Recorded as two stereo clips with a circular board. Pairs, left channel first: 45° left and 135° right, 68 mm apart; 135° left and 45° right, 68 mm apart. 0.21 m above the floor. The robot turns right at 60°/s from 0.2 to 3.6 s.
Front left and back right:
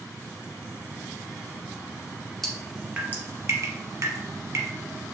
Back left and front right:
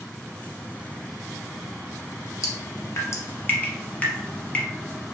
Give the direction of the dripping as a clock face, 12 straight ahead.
8 o'clock.